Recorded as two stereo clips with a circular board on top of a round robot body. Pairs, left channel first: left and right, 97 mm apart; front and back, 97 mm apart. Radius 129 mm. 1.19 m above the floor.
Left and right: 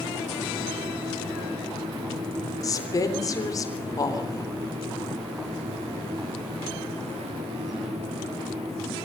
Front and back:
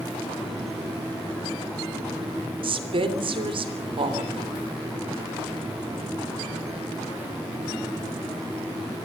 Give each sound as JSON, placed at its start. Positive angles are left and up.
{"t": 2.6, "sound": "a woman speaking", "azimuth_deg": 145, "distance_m": 3.5}